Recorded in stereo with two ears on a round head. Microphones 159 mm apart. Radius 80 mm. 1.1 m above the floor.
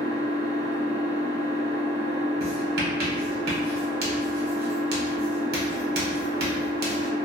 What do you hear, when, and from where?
0.0 s an engine running: 40° right (ahead or behind), 0.9 m
2.4 s writing: 60° right (ahead or behind), 0.8 m